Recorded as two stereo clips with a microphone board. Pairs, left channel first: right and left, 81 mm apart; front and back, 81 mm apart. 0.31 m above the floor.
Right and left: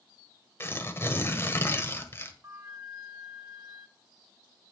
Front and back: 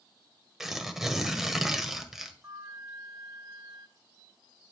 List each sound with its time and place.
0.6 s tearing paper: 100° right, 1.4 m
2.4 s a flute: 145° left, 1.6 m